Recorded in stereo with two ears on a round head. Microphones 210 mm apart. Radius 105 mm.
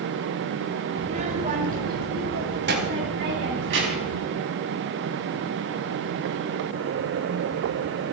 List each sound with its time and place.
1.0 s a child speaking: 25° right (ahead or behind), 2.0 m; by 4.2 s 55° right (ahead or behind), 4 m